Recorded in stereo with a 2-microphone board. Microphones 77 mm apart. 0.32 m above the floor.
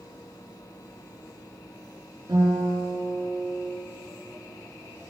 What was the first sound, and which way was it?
A guitar, 75° right (ahead or behind).